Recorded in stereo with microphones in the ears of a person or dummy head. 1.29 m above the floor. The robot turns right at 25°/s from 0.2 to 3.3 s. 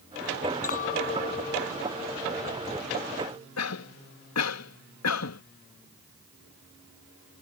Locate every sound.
0.6 s a clink: 135° left; by 3.5 s 160° right
3.6 s a cough: 80° left